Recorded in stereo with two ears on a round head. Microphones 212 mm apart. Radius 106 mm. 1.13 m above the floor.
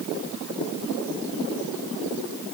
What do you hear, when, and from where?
Only background noise.